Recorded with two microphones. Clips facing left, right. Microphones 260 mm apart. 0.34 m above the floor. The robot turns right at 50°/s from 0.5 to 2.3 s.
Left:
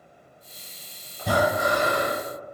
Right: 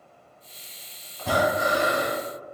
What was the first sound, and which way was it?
Breathing, 160° left.